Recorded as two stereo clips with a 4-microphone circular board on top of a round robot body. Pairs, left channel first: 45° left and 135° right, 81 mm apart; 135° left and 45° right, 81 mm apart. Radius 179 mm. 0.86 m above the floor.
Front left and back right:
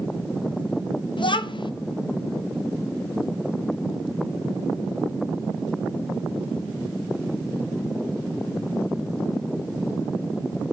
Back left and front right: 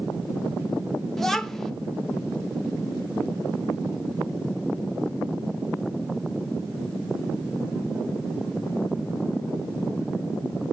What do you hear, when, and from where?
1.2 s a child speaking: 50° left, 0.8 m